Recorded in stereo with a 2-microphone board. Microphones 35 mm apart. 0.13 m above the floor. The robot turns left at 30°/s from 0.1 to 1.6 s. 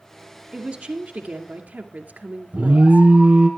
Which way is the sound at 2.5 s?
40° right (ahead or behind).